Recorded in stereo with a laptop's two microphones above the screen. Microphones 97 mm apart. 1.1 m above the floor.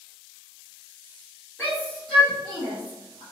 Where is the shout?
25° left (ahead or behind), 1.4 m; by 3.2 s 55° right (ahead or behind), 1.3 m.